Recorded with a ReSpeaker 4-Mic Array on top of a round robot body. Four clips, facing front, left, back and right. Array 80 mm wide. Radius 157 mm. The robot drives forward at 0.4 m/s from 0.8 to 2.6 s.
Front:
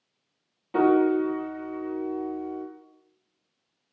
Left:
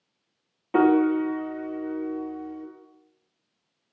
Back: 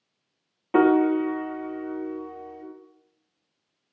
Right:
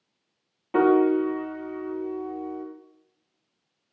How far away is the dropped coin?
I don't hear a dropped coin.